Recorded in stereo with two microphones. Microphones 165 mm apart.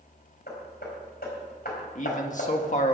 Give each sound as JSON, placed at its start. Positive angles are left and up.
{"t": 0.5, "sound": "hammering", "side_deg": 70, "distance_m": 4.0}
{"t": 1.9, "sound": "a man speaking", "side_deg": 50, "distance_m": 1.5}